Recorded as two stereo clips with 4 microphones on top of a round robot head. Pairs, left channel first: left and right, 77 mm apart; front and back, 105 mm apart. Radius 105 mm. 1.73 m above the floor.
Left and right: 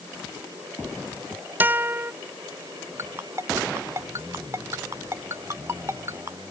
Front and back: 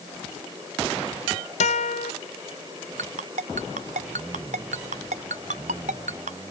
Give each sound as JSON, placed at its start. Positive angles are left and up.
{"t": 1.6, "sound": "a guitar", "azimuth_deg": -25}
{"t": 3.0, "sound": "a ringtone", "azimuth_deg": -160}